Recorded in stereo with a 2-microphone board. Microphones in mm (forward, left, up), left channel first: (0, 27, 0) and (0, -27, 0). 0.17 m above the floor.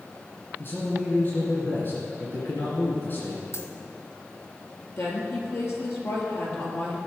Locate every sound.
0.6 s a man speaking: 40° left (ahead or behind), 2 m
3.5 s a dropped coin: 55° left (ahead or behind), 1.2 m
5.0 s a woman speaking: 55° left (ahead or behind), 3.5 m